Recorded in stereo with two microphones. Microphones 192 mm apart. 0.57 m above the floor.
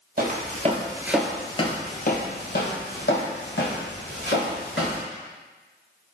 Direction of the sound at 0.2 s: 55° right (ahead or behind).